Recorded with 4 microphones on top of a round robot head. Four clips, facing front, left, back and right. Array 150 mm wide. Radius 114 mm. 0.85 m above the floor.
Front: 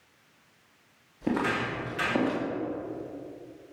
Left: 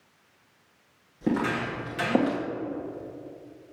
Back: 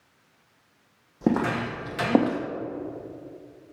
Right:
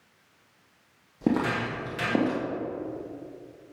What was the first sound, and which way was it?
Footsteps, 150° right.